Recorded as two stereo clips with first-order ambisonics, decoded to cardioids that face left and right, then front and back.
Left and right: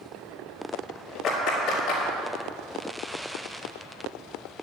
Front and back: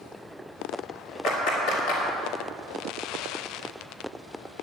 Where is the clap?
35° left, 4 m.